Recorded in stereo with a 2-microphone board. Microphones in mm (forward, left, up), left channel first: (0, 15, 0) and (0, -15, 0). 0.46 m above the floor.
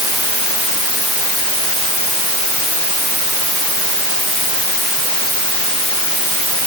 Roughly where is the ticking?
No ticking in this recording.